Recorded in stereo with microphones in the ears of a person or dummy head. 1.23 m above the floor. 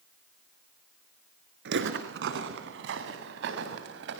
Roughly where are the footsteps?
Right.